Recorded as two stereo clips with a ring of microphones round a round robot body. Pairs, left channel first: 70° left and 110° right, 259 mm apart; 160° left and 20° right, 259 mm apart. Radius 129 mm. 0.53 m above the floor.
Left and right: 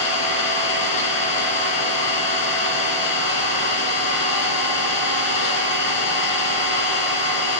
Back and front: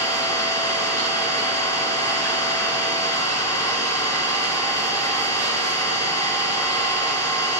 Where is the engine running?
80° left, 2.5 m.